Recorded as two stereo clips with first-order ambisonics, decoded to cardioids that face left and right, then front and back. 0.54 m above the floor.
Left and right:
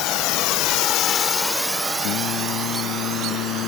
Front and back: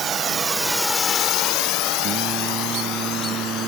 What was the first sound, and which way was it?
A drone, 115° left.